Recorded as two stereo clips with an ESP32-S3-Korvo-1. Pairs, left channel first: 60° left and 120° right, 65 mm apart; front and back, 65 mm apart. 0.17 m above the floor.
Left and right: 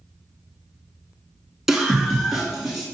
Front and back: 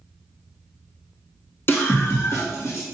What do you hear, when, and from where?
1.7 s a scream: 35° right, 1.5 m; by 2.9 s 30° right, 2 m